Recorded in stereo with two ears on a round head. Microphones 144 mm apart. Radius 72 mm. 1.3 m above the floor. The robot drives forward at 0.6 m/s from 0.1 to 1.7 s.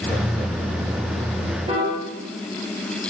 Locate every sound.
1.7 s a piano: 35° right (ahead or behind), 1.6 m